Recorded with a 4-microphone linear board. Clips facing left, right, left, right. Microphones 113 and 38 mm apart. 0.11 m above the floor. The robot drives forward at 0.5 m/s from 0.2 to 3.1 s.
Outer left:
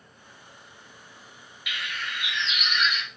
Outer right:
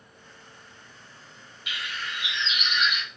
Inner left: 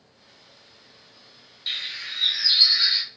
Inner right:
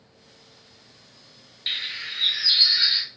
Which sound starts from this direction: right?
A bird, at 1.7 s.